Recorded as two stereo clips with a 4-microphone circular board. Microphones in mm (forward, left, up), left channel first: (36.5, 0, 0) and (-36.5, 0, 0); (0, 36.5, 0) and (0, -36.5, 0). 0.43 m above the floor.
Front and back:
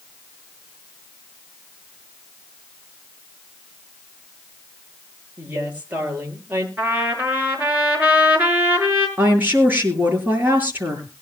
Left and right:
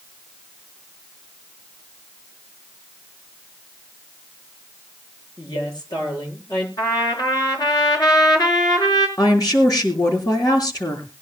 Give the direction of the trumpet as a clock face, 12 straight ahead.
8 o'clock.